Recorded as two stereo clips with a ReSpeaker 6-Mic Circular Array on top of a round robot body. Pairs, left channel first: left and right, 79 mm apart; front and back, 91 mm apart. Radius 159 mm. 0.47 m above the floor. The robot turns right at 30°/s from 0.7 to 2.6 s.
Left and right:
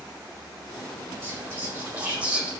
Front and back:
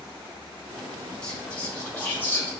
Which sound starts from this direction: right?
Whispering, at 1.2 s.